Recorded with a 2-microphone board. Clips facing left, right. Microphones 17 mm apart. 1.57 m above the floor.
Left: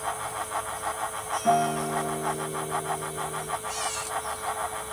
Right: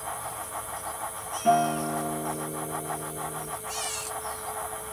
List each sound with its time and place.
1.4 s a guitar: 25° right (ahead or behind), 1.1 m